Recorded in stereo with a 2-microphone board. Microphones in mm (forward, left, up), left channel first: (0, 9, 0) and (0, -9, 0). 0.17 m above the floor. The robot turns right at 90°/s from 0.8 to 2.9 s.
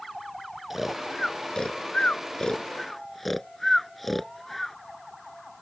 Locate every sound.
0.7 s snoring: 15° right (ahead or behind); by 4.8 s 5° left (ahead or behind)